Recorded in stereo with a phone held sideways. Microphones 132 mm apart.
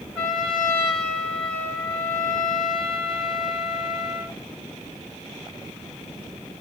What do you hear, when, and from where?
0.1 s a trumpet: 5° left (ahead or behind), 3 m